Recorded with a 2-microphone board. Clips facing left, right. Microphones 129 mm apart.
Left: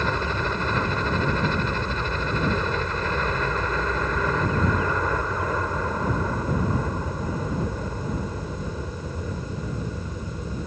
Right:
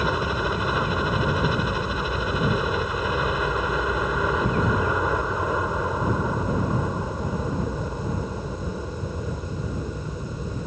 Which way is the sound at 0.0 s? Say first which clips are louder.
Right 1 dB; 10° right (ahead or behind).